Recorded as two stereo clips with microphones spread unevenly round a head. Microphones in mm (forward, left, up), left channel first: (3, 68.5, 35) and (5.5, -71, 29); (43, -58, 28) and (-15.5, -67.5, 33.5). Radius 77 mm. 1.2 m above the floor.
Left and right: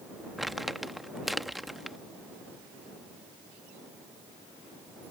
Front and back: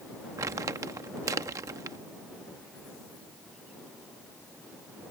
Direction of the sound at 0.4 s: Straight behind.